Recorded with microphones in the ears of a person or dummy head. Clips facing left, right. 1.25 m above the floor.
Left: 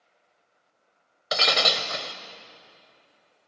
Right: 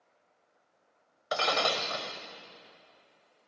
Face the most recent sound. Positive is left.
turn(degrees=30)  # may be behind; listen again after turning